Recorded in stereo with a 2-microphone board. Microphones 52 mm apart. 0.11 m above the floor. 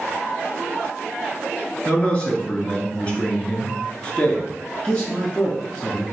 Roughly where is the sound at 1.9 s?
Left.